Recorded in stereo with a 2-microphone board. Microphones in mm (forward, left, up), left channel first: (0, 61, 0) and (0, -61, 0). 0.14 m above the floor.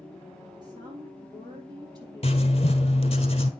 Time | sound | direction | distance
0.6 | a woman speaking | 35° right (ahead or behind) | 3.5 m
2.2 | writing | 55° left (ahead or behind) | 1.2 m